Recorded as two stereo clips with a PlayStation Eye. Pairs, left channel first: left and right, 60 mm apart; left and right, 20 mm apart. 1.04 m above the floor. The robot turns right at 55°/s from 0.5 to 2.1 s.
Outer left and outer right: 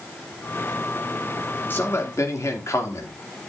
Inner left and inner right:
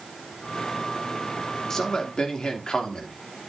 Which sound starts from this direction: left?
A man speaking, at 1.7 s.